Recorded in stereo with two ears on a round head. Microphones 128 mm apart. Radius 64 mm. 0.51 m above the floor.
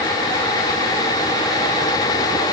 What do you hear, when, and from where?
Only background noise.